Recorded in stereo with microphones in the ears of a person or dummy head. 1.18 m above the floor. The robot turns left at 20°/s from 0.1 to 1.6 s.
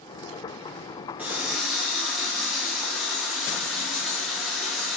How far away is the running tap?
About 0.7 m.